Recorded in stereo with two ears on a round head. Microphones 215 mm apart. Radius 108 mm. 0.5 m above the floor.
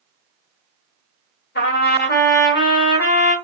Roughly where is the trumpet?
Left.